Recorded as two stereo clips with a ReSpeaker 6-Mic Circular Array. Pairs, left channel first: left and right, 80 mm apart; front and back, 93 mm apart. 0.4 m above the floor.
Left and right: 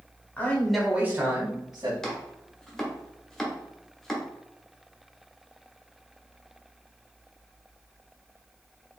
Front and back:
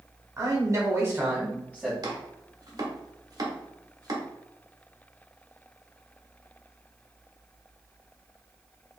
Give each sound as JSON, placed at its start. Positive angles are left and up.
{"t": 0.4, "sound": "a man speaking", "azimuth_deg": 145, "distance_m": 1.5}
{"t": 2.0, "sound": "chopping", "azimuth_deg": 170, "distance_m": 1.2}